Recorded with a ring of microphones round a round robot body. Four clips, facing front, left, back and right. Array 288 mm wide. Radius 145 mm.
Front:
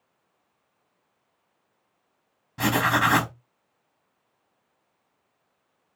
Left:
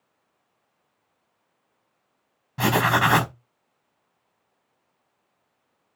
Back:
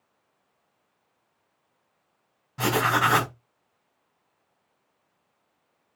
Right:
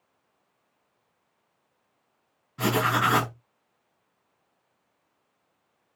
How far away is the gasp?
No gasp in this recording.